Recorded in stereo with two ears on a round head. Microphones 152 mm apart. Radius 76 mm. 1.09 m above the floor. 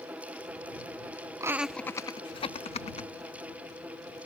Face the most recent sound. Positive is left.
turn(degrees=40)  # may be behind; listen again after turning